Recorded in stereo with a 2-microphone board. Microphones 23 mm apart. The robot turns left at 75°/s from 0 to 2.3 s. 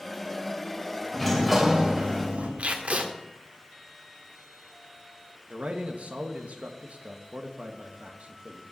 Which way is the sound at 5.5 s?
70° right (ahead or behind).